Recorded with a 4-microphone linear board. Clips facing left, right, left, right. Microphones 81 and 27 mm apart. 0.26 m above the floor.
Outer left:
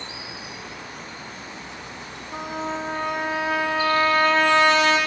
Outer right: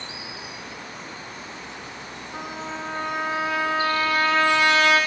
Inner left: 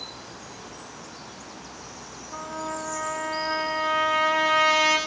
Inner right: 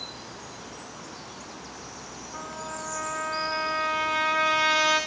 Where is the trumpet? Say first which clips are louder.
Outer left 5 dB, inner left 5 dB; 90° left, 5.5 m.